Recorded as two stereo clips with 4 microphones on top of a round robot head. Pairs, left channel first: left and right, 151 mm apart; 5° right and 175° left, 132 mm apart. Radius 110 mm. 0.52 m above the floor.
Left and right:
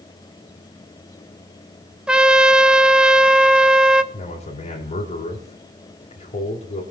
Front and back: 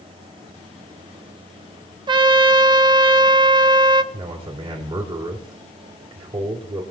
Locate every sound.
2.1 s a trumpet: 170° right, 0.9 m
4.1 s a man speaking: 130° left, 2.5 m